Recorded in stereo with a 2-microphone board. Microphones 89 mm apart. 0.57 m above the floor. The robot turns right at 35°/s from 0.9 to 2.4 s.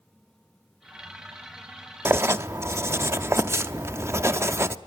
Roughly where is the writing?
Right.